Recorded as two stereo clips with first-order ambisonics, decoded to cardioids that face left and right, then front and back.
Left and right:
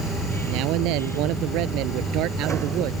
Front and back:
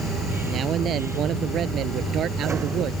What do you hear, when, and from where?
0.5 s a man speaking: 120° right; by 2.9 s 130° right